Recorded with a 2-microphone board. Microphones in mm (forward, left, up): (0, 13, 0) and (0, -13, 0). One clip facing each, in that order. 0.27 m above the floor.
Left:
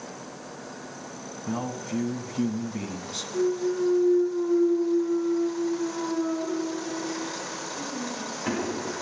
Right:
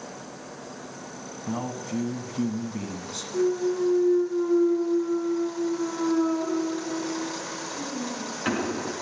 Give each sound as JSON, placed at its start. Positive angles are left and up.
{"t": 1.5, "sound": "a man speaking", "side_deg": -5, "distance_m": 2.0}
{"t": 3.3, "sound": "a clunk", "side_deg": -65, "distance_m": 3.0}